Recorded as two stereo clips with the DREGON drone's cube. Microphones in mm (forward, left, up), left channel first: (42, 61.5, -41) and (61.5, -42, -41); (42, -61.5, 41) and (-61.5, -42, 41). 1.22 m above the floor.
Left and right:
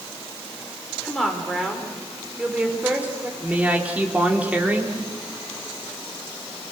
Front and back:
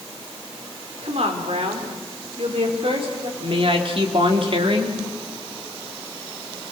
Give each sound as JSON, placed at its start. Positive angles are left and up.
{"t": 1.0, "sound": "a woman speaking", "azimuth_deg": -175, "distance_m": 4.0}
{"t": 3.4, "sound": "a woman speaking", "azimuth_deg": -155, "distance_m": 3.0}